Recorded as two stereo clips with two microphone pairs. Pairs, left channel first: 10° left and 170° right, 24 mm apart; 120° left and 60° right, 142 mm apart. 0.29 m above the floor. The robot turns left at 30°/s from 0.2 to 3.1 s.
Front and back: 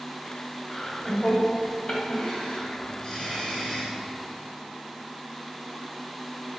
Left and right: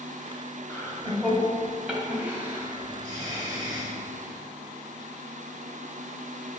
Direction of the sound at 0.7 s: 55° left.